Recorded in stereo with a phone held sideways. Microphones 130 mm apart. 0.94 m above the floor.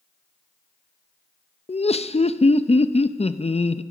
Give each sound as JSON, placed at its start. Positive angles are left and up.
{"t": 1.7, "sound": "laughter", "side_deg": 55, "distance_m": 0.5}